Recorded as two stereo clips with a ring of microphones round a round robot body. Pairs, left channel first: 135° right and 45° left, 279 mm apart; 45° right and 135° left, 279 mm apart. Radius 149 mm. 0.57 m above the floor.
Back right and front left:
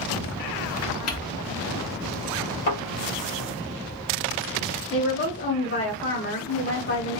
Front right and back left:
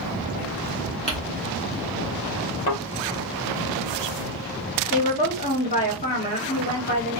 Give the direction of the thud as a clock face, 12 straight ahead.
4 o'clock.